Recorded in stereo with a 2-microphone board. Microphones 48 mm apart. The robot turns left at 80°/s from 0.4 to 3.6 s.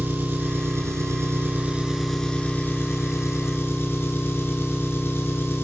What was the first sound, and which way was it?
An engine running, 45° right.